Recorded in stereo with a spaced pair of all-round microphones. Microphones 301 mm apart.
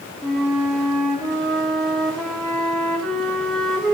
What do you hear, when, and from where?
0.2 s a flute: centre (ahead or behind), 1.4 m